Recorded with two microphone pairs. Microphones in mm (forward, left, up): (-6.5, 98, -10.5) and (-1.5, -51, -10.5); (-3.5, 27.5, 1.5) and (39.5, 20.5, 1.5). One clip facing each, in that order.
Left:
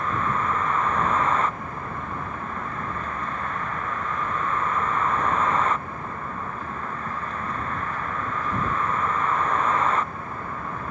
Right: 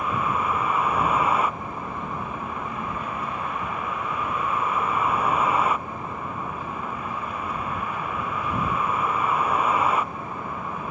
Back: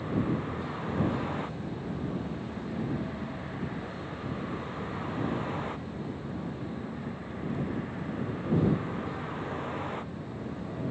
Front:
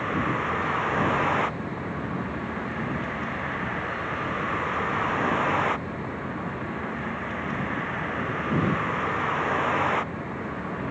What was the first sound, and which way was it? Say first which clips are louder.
A vehicle: even, front 5 dB; 10° right.